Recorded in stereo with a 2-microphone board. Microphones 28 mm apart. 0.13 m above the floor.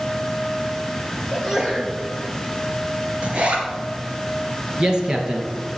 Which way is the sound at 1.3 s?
20° right (ahead or behind).